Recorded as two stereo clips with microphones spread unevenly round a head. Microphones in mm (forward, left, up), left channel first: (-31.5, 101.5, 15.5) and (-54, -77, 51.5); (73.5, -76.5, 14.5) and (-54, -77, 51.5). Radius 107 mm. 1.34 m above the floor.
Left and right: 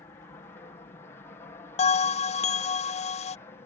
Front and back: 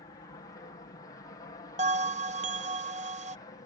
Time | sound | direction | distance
0.0 | an aircraft | 25° left | ?
1.8 | a bell | 140° left | ?